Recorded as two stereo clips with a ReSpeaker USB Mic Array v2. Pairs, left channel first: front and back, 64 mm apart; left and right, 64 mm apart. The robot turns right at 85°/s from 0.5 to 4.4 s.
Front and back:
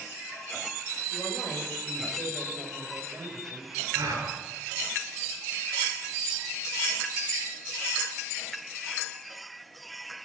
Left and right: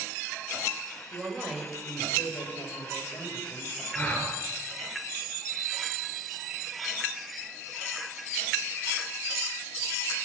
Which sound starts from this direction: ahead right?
A woman speaking, at 1.1 s.